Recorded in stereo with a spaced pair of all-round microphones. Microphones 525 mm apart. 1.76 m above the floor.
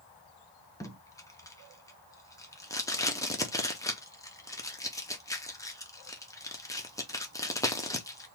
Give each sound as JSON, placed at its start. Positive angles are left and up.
{"t": 0.8, "sound": "tape being pulled", "side_deg": 5, "distance_m": 0.6}